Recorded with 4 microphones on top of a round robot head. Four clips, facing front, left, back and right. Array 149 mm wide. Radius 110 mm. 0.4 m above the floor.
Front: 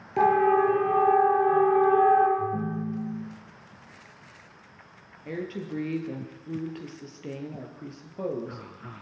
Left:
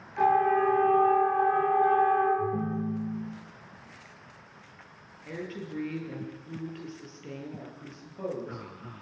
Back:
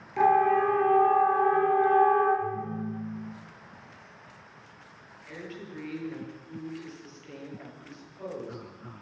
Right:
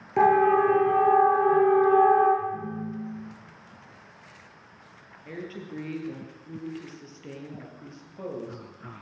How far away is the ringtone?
About 8 m.